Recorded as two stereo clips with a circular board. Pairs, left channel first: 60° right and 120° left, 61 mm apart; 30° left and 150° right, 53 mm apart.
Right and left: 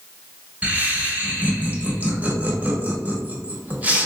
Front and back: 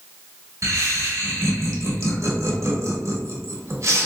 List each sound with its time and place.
0.6 s laughter: 175° right, 1.0 m